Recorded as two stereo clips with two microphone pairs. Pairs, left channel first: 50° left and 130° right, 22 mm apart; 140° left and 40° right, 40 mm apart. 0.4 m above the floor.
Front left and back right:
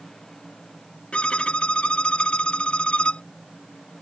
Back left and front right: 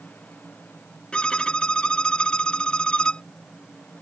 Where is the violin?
75° left.